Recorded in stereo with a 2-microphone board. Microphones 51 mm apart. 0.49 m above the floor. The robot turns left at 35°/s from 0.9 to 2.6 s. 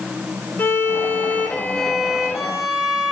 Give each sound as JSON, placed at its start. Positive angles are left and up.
{"t": 0.6, "sound": "a violin", "azimuth_deg": 45, "distance_m": 0.9}